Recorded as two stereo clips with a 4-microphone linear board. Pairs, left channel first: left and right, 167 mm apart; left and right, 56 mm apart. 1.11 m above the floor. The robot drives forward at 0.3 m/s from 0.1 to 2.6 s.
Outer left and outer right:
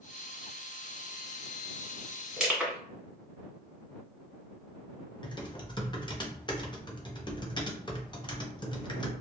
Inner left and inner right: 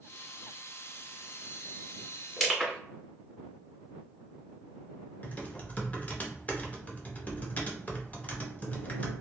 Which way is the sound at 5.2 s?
25° left (ahead or behind).